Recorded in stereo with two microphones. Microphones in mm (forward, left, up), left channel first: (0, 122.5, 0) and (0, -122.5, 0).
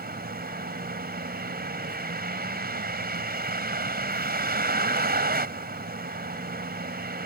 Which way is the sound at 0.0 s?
40° right (ahead or behind).